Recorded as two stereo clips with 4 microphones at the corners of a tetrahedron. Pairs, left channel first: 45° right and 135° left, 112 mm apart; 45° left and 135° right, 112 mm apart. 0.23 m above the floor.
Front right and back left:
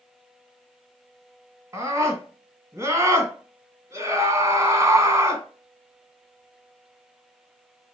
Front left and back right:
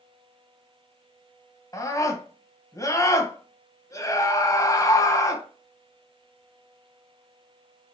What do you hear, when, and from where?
1.7 s a scream: 90° left, 1.8 m